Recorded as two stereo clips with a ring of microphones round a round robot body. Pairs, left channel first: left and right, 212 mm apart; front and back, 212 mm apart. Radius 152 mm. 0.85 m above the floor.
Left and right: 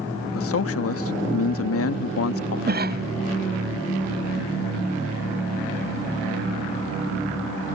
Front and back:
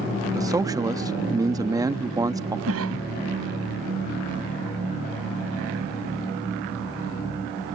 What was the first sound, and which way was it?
A man speaking, 105° left.